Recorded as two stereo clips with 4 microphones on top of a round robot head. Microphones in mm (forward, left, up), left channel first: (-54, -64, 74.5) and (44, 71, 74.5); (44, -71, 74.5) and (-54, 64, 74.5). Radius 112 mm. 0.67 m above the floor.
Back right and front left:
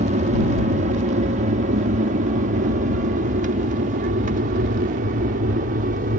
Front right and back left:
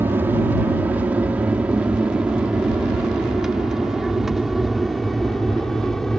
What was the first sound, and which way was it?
An aircraft, 50° left.